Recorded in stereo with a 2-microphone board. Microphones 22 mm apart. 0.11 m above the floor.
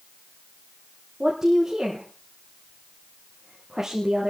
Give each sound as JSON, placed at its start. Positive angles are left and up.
{"t": 1.2, "sound": "a woman speaking", "side_deg": -25, "distance_m": 4.0}